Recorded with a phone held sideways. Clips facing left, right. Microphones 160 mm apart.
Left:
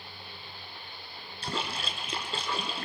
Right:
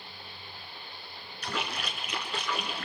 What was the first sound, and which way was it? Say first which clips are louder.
A splash: even; 30° left (ahead or behind).